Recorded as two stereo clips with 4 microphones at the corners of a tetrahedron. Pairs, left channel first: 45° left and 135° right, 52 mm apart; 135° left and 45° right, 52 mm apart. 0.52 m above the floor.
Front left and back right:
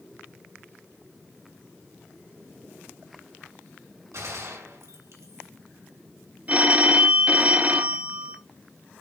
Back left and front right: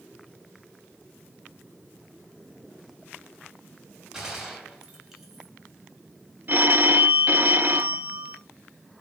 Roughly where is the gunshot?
Behind right.